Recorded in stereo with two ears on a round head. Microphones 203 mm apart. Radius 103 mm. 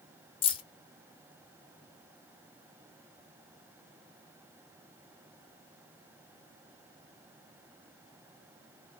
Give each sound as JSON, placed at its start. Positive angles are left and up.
{"t": 0.4, "sound": "keys jangling", "side_deg": 25, "distance_m": 0.5}